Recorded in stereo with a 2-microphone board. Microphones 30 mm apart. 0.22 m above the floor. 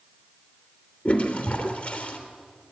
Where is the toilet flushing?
50° left (ahead or behind), 3 m.